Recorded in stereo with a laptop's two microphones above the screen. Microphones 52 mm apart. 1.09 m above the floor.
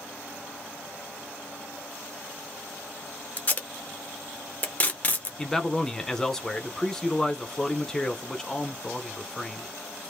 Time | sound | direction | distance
3.4 | tape being pulled | 30° left (ahead or behind) | 0.9 m
5.4 | a man speaking | 10° left (ahead or behind) | 0.8 m